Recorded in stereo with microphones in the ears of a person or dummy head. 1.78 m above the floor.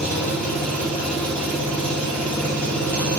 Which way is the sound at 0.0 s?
10° left (ahead or behind).